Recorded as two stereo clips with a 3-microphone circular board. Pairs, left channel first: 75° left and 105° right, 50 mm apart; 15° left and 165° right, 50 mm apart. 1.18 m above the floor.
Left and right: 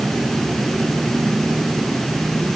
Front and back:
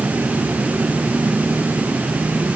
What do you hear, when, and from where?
Only background noise.